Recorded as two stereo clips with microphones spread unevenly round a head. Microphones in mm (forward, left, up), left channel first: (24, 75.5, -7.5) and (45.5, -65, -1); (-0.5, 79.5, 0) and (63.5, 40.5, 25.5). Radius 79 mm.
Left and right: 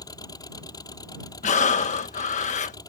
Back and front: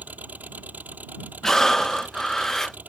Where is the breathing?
60° left.